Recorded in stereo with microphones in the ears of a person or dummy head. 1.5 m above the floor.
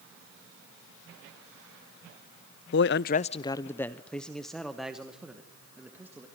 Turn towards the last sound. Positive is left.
turn(degrees=-5)  # may be behind; listen again after turning